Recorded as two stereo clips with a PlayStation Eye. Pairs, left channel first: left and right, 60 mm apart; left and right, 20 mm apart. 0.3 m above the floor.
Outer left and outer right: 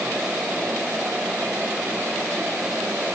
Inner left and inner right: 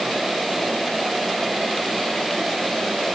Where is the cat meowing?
No cat meowing in this recording.